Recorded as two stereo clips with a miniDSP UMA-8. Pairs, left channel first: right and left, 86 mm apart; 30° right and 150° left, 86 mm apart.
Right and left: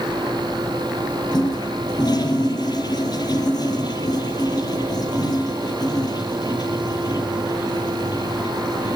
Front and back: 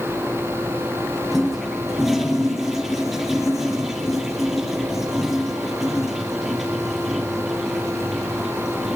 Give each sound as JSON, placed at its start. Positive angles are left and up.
{"t": 1.3, "sound": "a toilet flushing", "azimuth_deg": -120, "distance_m": 2.5}